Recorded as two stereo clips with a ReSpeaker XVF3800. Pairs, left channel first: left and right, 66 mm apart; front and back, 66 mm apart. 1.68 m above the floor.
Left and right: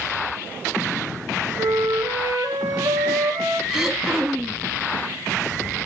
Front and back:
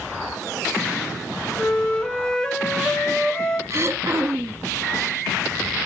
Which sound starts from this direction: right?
A flute, at 1.6 s.